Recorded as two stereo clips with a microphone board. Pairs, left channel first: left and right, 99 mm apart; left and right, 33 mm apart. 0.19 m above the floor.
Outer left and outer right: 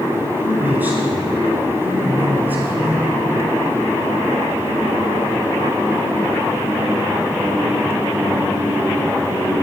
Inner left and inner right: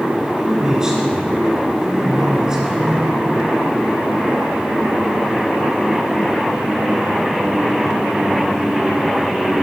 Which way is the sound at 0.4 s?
20° right (ahead or behind).